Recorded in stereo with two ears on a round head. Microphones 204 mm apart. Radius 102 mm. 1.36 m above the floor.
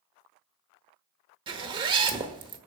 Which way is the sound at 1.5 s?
20° right (ahead or behind).